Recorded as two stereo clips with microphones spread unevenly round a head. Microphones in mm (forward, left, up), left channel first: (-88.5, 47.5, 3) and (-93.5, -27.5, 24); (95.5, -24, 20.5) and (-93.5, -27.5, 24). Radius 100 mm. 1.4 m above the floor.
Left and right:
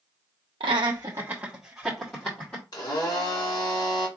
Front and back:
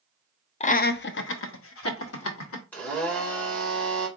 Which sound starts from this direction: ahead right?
Laughter, at 0.6 s.